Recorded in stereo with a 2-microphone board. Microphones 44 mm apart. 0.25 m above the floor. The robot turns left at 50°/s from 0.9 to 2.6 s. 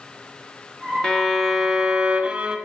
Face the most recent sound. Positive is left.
turn(degrees=-55)